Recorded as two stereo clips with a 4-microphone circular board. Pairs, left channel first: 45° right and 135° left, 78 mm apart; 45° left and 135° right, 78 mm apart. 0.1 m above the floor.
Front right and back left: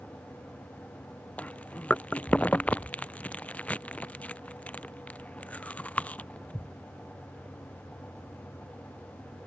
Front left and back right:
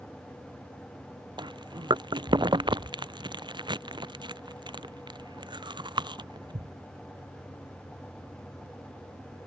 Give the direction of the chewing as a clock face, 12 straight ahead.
4 o'clock.